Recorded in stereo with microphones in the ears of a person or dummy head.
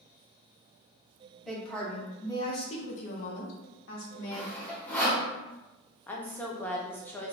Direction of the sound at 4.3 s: 10° left (ahead or behind).